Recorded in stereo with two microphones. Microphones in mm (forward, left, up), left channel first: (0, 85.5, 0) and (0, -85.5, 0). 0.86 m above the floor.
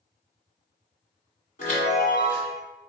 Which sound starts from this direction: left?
A chime, at 1.6 s.